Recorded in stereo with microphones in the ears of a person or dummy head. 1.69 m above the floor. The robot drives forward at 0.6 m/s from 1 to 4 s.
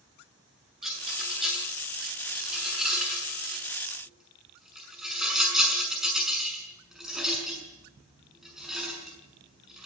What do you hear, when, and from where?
0.8 s a rattle: centre (ahead or behind), 8 m